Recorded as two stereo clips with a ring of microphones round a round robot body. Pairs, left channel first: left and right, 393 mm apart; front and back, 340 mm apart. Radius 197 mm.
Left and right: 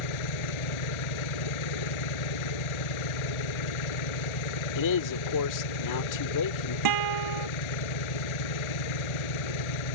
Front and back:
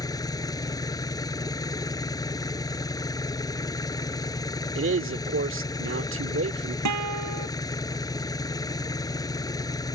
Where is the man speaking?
130° left.